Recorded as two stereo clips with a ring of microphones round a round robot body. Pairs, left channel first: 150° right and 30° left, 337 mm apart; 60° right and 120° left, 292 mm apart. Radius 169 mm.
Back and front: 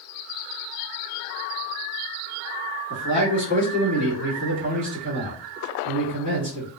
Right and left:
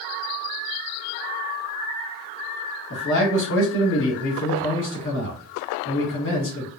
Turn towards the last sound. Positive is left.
turn(degrees=-30)